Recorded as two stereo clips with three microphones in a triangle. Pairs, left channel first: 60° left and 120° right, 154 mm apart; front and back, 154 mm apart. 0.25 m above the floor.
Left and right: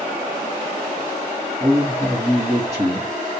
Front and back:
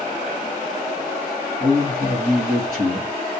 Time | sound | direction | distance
1.6 | a man speaking | 170° left | 2 m